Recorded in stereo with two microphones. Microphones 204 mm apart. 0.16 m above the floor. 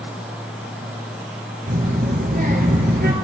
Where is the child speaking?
50° right (ahead or behind), 2 m.